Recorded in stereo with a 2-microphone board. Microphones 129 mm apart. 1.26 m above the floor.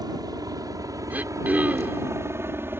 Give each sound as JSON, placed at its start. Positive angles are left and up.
{"t": 0.0, "sound": "a helicopter", "side_deg": -30}
{"t": 1.1, "sound": "throat clearing", "side_deg": -10}